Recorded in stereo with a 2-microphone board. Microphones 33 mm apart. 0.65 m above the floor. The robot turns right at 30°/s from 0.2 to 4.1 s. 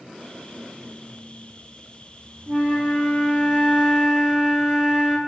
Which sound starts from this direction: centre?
A flute, at 2.5 s.